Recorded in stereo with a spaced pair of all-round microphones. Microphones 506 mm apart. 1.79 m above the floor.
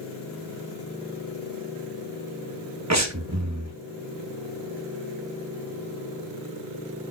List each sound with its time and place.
2.9 s breathing: 30° right (ahead or behind), 1.2 m